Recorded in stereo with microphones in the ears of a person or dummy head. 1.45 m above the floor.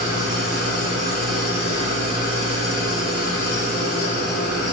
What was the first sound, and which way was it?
An engine running, 35° right (ahead or behind).